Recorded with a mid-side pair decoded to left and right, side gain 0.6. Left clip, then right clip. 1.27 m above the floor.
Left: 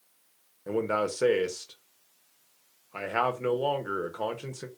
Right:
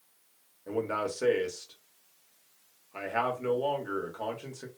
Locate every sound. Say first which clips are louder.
0.7 s a man speaking: left 3 dB; 30° left, 0.8 m